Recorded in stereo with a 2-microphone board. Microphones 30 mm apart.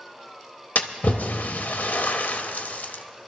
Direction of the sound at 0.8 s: 70° left (ahead or behind).